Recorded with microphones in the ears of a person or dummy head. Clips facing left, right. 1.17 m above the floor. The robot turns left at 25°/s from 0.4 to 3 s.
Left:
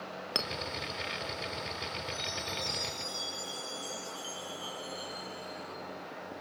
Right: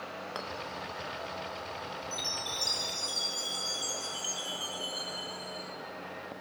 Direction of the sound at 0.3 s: 40° left (ahead or behind).